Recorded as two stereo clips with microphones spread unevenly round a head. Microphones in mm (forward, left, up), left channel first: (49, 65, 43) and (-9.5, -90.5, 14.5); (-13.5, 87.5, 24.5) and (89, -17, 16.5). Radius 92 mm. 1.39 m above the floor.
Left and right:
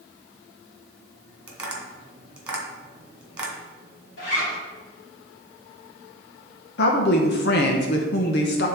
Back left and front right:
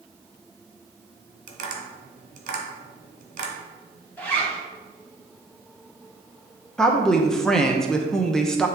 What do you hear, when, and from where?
1.5 s tapping: 20° right, 2 m
4.2 s a zipper: 55° left, 3 m
6.8 s a woman speaking: 50° left, 0.9 m